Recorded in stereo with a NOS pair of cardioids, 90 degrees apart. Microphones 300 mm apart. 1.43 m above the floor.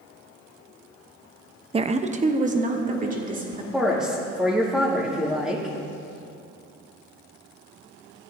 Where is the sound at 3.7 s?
Straight ahead, 2 m.